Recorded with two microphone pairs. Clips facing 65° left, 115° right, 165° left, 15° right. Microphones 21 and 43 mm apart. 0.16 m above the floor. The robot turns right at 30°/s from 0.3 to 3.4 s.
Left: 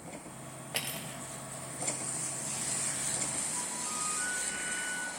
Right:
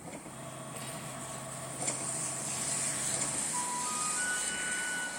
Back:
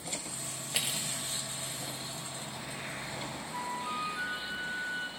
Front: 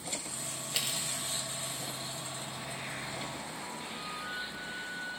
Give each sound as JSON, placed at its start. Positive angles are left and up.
{"t": 0.7, "sound": "cutlery clinking", "azimuth_deg": 85, "distance_m": 1.8}
{"t": 3.5, "sound": "a flute", "azimuth_deg": -175, "distance_m": 3.5}